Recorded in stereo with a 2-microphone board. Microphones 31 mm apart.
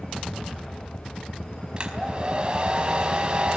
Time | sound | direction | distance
1.8 | a hair dryer | 30° right (ahead or behind) | 4 m